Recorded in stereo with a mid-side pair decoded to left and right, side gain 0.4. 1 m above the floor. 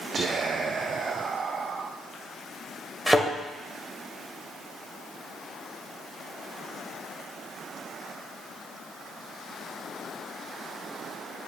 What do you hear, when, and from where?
0.1 s whispering: 55° right, 0.5 m
3.1 s a thud: 10° right, 1.9 m